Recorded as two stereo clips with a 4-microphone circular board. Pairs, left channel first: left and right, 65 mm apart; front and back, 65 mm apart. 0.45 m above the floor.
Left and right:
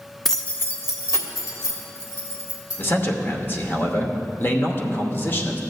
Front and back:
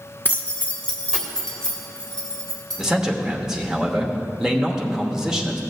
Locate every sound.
0.2 s keys jangling: 5° left, 0.6 m; by 2.8 s 80° left, 3 m
2.8 s a man speaking: 105° left, 1.1 m